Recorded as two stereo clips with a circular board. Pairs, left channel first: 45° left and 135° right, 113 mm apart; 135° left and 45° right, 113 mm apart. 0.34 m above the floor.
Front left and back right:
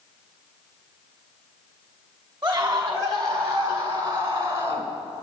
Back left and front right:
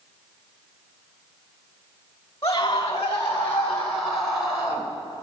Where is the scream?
175° right, 2 m; by 4.9 s 110° right, 1.8 m.